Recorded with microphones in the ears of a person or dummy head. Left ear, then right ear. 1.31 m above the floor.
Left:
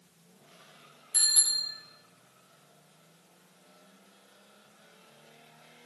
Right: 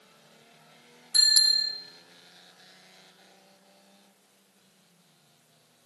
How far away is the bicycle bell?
About 3 m.